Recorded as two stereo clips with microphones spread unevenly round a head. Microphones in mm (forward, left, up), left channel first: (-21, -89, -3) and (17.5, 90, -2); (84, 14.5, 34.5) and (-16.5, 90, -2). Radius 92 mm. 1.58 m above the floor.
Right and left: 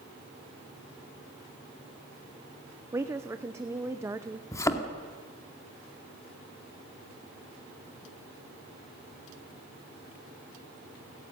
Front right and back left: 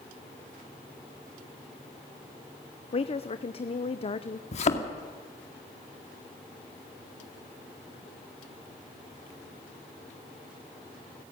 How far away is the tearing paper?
No tearing paper in this recording.